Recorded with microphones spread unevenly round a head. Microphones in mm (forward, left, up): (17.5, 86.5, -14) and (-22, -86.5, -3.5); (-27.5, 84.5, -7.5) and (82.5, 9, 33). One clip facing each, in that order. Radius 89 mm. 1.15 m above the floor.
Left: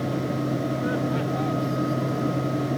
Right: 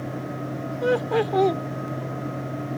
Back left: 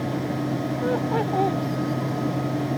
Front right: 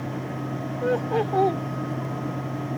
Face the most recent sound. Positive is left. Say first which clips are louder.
# right 3 dB, front right 2 dB
turn(degrees=-105)